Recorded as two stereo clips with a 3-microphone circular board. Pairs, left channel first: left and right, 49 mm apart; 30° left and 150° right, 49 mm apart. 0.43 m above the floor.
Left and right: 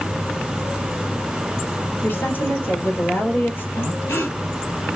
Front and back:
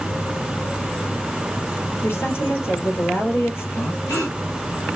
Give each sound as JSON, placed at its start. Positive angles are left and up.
{"t": 2.0, "sound": "a woman speaking", "azimuth_deg": 55, "distance_m": 3.0}
{"t": 3.8, "sound": "breathing", "azimuth_deg": 60, "distance_m": 4.0}